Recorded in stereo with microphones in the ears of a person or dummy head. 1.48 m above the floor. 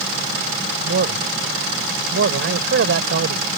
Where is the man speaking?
75° right (ahead or behind).